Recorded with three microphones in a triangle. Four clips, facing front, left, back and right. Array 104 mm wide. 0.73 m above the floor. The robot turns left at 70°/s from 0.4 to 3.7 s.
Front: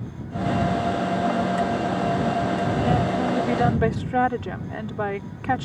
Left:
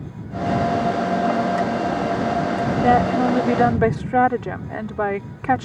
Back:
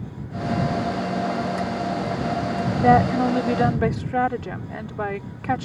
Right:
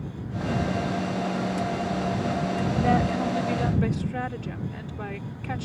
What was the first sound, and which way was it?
A woman speaking, 155° left.